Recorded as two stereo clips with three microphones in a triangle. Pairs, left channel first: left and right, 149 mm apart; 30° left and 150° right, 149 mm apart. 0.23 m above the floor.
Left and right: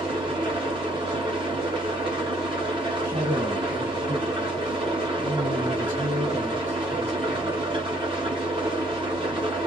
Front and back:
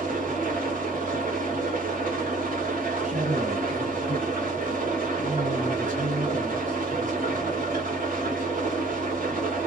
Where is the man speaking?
150° right, 2.5 m.